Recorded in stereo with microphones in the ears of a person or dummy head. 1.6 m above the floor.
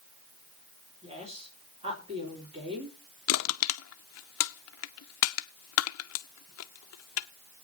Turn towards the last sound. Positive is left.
turn(degrees=75)  # may be behind; listen again after turning